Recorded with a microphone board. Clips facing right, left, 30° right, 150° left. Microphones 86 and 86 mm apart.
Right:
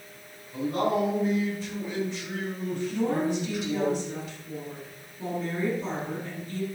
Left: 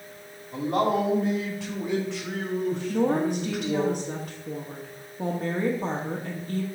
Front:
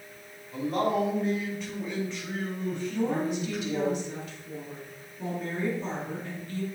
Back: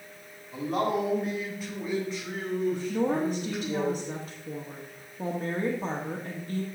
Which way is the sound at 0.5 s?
65° left.